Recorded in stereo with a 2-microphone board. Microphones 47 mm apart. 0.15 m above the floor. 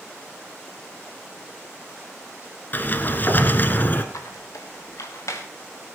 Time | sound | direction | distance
2.7 | a sliding door | 40° left (ahead or behind) | 1.1 m
4.1 | a squeak | 75° left (ahead or behind) | 2 m